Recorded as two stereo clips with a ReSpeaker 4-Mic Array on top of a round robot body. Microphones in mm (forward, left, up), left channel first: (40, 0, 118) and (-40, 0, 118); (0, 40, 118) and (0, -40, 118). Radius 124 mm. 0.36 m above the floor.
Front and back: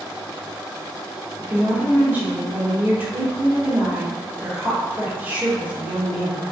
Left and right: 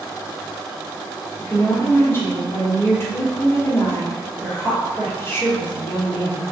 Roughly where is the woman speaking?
Behind left.